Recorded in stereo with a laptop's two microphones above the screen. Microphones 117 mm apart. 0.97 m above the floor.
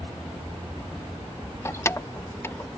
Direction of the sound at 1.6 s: 25° left (ahead or behind).